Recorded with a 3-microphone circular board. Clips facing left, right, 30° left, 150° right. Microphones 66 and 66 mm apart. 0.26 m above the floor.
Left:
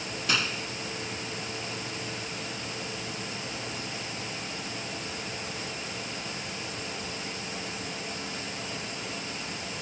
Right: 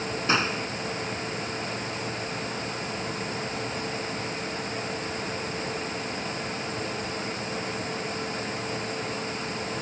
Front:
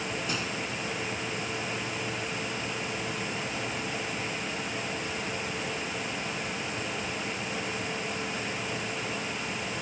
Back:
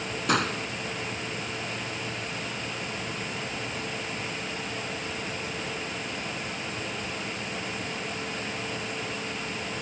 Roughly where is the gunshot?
Behind right.